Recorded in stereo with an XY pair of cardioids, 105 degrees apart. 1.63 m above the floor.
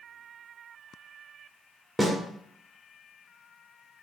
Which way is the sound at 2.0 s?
10° right.